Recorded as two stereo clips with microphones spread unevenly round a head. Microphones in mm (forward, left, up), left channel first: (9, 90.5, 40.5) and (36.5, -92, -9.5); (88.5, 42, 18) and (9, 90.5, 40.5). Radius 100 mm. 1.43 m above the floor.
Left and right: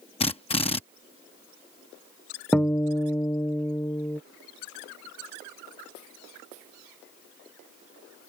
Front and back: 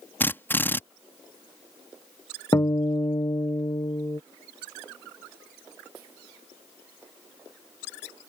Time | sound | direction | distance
0.2 | a drill | 40° left | ?
2.5 | a guitar | 5° left | ?